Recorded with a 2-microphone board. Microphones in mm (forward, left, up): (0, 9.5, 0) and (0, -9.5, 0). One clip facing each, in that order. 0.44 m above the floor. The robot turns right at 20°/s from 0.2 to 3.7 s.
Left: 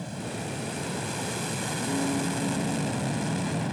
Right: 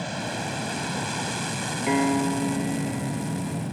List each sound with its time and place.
0.0 s an aircraft: 40° right (ahead or behind); by 3.7 s 25° left (ahead or behind)
1.9 s a piano: 85° right; by 3.6 s 50° right